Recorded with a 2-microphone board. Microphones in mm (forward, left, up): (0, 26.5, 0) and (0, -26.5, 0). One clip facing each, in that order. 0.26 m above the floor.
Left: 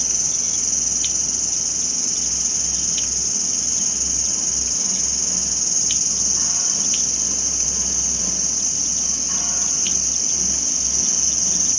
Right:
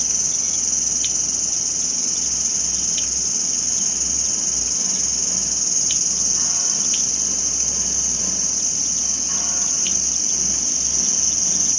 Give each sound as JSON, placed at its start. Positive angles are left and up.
{"t": 0.0, "sound": "an insect", "side_deg": -45, "distance_m": 5.5}